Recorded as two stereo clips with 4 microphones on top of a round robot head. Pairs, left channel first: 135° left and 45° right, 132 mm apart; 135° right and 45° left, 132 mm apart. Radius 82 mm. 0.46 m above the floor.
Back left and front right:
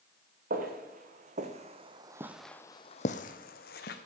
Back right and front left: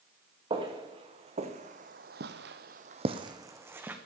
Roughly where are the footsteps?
Ahead.